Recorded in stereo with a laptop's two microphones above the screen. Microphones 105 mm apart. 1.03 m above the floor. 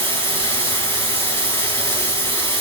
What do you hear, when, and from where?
0.0 s running water: 25° left (ahead or behind), 3.5 m